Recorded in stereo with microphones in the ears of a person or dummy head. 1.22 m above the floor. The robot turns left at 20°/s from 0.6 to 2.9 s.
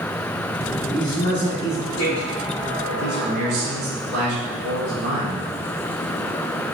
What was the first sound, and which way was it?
A man speaking, 35° left (ahead or behind).